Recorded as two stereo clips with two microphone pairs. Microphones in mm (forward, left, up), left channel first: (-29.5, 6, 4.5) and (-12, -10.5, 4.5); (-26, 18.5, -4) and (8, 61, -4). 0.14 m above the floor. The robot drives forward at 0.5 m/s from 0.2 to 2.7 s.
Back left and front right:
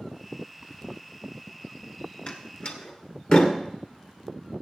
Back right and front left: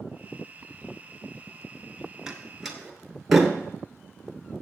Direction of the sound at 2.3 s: 125° left.